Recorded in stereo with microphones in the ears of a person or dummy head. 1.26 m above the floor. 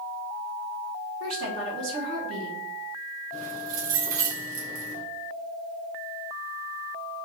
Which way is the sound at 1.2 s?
75° right (ahead or behind).